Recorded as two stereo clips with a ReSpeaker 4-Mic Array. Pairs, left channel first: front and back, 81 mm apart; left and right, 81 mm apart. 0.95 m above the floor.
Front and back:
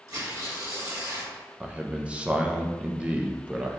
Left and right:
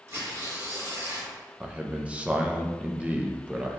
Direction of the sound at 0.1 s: 140° right.